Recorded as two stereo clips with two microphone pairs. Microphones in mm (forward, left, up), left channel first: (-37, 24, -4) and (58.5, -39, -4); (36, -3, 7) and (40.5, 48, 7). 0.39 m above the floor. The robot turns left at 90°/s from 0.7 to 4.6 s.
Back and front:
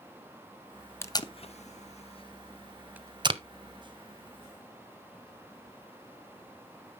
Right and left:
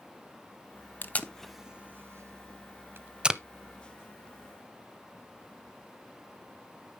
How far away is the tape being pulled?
About 0.5 m.